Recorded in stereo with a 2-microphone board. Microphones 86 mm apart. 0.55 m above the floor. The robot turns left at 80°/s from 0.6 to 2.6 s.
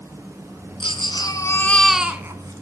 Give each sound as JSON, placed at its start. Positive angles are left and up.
{"t": 0.8, "sound": "a baby crying", "azimuth_deg": 90, "distance_m": 1.6}